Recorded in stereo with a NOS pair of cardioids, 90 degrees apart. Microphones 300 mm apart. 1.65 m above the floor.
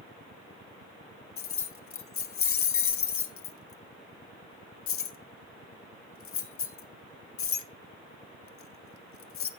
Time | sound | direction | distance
1.4 | keys jangling | 50° left | 1.9 m